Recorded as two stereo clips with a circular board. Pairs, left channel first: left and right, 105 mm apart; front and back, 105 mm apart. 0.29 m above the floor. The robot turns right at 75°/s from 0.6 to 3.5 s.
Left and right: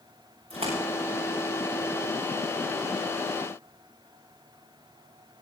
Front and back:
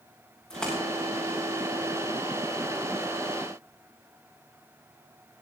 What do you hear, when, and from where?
0.5 s a splash: 85° right, 7 m; by 0.8 s 75° right, 7 m